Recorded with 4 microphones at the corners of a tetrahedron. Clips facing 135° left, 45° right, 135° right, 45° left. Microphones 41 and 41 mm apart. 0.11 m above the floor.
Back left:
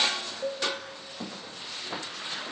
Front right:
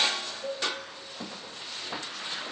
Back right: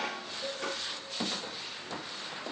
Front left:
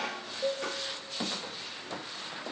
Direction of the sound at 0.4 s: 90° left.